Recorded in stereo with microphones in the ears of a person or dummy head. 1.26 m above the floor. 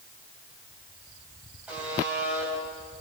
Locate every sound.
1.7 s a buzzer: 10° right (ahead or behind), 10 m